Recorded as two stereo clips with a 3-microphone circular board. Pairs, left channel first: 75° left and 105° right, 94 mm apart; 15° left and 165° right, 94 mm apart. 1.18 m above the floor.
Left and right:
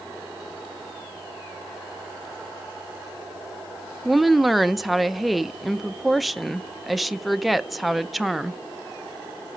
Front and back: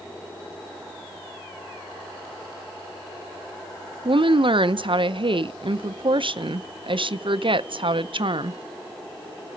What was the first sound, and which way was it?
A woman speaking, 165° left.